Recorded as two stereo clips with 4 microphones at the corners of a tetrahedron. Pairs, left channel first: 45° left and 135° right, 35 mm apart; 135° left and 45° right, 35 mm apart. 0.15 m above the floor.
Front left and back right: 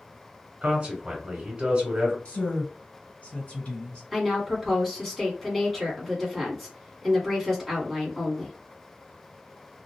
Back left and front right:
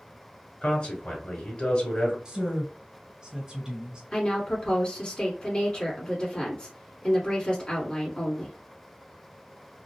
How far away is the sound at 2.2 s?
About 2.0 m.